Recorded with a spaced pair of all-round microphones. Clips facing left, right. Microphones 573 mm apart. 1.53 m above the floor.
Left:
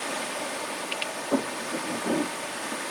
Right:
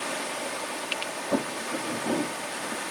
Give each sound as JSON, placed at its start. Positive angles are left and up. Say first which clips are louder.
{"t": 1.3, "sound": "footsteps", "louder": "left 1 dB", "side_deg": -20, "distance_m": 3.0}